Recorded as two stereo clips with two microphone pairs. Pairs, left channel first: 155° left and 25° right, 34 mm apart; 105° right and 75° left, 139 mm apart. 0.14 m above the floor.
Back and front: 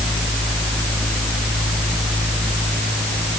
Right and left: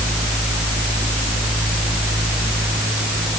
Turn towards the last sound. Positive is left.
No sound to turn to.